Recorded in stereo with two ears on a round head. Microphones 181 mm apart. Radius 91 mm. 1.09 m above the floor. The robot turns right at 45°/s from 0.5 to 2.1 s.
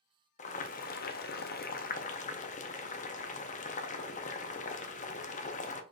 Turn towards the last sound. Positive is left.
turn(degrees=125)